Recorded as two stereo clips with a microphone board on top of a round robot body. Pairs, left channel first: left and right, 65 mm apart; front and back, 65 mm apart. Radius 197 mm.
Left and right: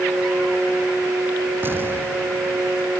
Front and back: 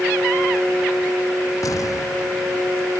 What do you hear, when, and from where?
1.6 s an explosion: 35° right